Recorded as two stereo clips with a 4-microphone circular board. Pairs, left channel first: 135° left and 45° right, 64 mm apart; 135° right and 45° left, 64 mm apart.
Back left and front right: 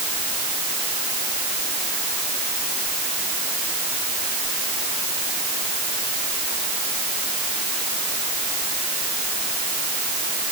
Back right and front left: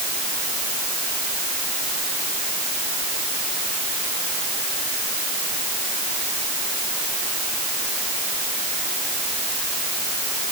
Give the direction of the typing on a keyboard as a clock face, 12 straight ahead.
No typing on a keyboard in this recording.